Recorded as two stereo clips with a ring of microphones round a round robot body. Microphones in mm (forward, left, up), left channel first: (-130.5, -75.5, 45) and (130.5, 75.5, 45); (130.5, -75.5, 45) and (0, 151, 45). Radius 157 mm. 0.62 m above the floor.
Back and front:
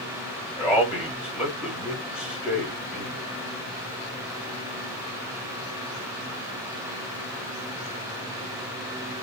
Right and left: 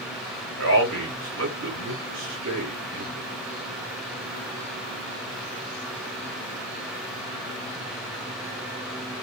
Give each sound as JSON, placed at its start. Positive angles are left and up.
{"t": 0.6, "sound": "a man speaking", "azimuth_deg": 115, "distance_m": 1.8}